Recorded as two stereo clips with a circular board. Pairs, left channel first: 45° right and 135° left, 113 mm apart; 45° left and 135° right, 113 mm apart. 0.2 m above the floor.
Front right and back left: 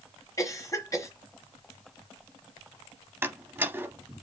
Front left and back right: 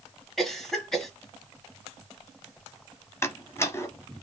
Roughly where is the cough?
Ahead right.